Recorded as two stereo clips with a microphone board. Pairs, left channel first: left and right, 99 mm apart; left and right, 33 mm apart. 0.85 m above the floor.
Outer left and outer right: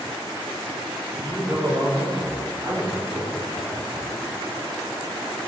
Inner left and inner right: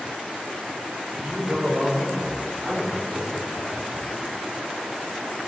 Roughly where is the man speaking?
Right.